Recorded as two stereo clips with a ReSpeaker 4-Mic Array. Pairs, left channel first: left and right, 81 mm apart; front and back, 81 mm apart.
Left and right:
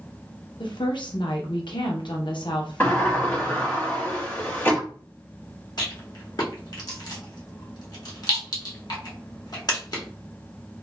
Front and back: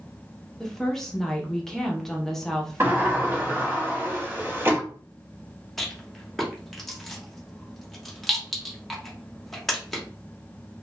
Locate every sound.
0.6 s a woman speaking: 85° left, 0.7 m
2.8 s a sliding door: 140° left, 1.1 m
5.8 s a rattle: 85° left, 0.9 m